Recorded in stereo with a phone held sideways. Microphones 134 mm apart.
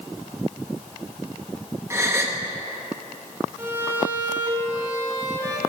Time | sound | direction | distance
1.9 | a gasp | 20° right (ahead or behind) | 1.0 m
3.6 | a violin | 20° right (ahead or behind) | 1.2 m